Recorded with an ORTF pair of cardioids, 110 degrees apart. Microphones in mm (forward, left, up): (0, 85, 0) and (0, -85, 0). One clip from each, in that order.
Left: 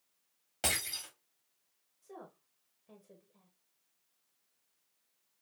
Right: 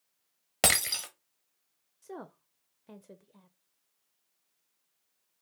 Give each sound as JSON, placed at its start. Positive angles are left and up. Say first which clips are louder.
{"t": 0.6, "sound": "breaking glass", "louder": "right 8 dB", "azimuth_deg": -70, "distance_m": 1.0}
{"t": 2.0, "sound": "a woman speaking", "louder": "right 6 dB", "azimuth_deg": -45, "distance_m": 0.5}